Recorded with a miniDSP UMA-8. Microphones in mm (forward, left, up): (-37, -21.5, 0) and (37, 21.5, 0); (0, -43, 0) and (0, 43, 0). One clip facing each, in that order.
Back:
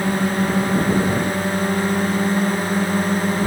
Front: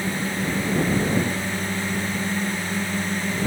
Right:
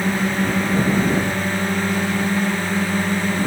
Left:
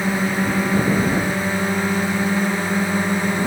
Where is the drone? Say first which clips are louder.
Back 6 dB, even; 170° left; by 3.5 s 165° left.